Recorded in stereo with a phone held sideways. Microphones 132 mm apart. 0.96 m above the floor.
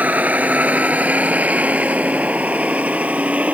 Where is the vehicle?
10° right (ahead or behind).